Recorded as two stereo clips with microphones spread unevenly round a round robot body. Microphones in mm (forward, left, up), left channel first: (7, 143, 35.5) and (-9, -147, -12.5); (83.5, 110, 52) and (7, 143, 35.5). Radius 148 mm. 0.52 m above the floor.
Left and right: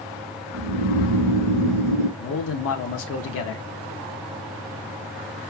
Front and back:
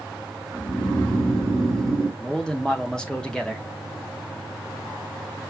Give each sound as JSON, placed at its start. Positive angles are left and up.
{"t": 0.5, "sound": "snoring", "azimuth_deg": -105, "distance_m": 2.0}
{"t": 2.2, "sound": "a man speaking", "azimuth_deg": 70, "distance_m": 0.8}